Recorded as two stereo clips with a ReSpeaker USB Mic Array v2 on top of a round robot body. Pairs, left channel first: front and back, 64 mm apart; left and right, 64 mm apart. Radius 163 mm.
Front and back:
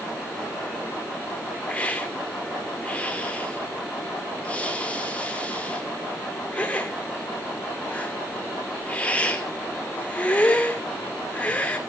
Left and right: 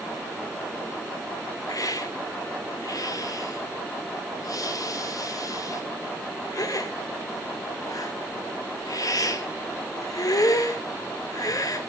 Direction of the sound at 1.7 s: 70° left.